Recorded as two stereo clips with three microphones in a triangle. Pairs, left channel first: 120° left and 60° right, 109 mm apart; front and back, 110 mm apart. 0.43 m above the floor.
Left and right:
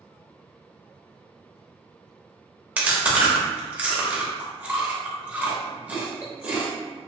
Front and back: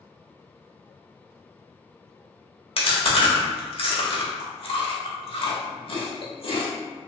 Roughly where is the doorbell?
I don't hear a doorbell.